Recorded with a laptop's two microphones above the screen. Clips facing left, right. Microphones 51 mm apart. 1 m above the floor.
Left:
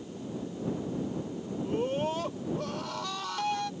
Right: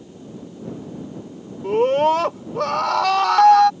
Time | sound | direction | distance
1.6 | a scream | 75° right (ahead or behind) | ?